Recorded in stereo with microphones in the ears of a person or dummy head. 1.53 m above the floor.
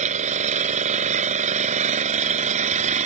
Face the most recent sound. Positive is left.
turn(degrees=-40)  # may be behind; listen again after turning